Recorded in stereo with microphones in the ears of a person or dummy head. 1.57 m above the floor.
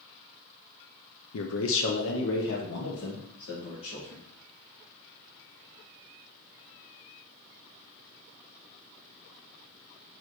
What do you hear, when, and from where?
1.3 s a man speaking: 80° left, 0.7 m; by 4.2 s 60° left (ahead or behind), 2.5 m